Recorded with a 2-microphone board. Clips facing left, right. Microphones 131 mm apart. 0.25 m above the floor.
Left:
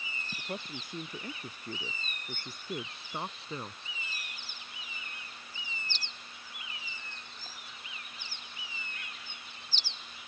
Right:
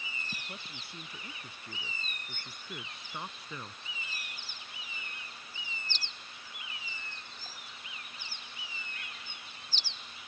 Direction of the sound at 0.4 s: 40° left (ahead or behind).